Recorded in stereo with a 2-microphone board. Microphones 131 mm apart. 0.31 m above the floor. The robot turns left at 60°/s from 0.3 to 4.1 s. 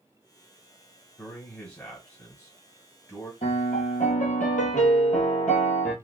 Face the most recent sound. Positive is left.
turn(degrees=80)